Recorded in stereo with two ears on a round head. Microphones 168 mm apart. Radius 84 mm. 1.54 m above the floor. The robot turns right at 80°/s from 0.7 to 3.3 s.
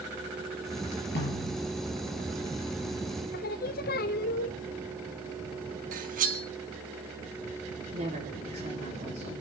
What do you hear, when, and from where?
1.1 s a snare drum: 120° left, 5.5 m; by 1.6 s 155° left, 5.5 m
3.3 s singing: 50° left (ahead or behind), 0.7 m
5.9 s cutlery clinking: 45° right (ahead or behind), 1.3 m
7.9 s a woman speaking: 40° right (ahead or behind), 3 m